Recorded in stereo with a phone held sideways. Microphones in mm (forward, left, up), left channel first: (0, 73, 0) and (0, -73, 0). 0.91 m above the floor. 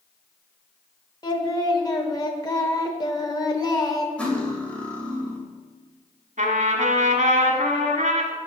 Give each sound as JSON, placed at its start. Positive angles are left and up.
{"t": 1.2, "sound": "singing", "side_deg": 30, "distance_m": 1.1}
{"t": 4.2, "sound": "cutlery clinking", "side_deg": 10, "distance_m": 2.0}
{"t": 6.4, "sound": "a trumpet", "side_deg": -65, "distance_m": 1.6}